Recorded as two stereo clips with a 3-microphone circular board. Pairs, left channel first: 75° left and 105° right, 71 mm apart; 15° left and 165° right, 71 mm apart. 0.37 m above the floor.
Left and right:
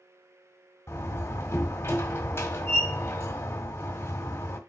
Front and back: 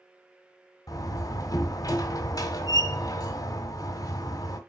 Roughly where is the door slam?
Ahead.